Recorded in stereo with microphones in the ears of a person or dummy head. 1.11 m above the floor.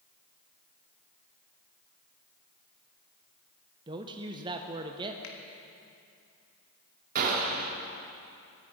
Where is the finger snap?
70° left (ahead or behind), 1.4 m.